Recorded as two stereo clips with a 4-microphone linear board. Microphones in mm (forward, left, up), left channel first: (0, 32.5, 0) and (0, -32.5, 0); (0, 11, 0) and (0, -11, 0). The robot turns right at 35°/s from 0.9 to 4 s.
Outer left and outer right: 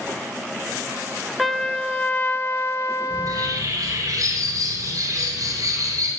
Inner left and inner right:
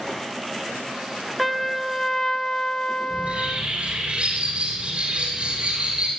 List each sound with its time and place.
1.4 s a trumpet: straight ahead, 0.6 m; by 3.7 s 80° left, 0.6 m
3.1 s a bird: 90° right, 7 m; by 6.1 s 60° right, 7 m